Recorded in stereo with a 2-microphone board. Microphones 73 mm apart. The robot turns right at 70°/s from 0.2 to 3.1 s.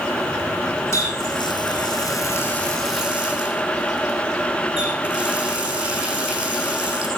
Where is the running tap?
40° left, 5 m; by 7.1 s 170° right, 5 m.